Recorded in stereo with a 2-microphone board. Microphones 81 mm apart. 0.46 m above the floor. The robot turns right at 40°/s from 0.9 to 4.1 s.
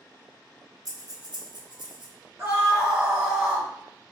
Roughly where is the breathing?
Right.